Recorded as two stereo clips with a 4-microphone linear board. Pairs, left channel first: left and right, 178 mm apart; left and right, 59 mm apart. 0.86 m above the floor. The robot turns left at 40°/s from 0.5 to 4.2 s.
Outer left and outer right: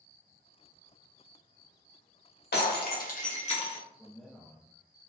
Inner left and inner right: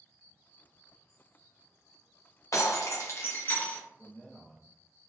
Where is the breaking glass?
80° left, 0.8 m; by 3.8 s 30° left, 0.8 m.